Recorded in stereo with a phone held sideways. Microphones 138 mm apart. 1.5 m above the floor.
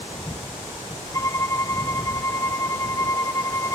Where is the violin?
25° left (ahead or behind).